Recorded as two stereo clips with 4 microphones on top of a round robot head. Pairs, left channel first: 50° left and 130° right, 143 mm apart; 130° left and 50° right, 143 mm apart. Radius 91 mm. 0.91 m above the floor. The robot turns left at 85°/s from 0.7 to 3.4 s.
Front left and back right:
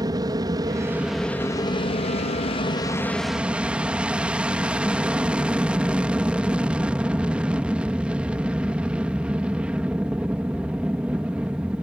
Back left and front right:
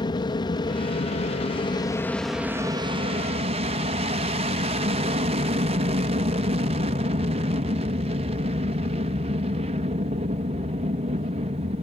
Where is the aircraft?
175° left; by 11.8 s 55° right.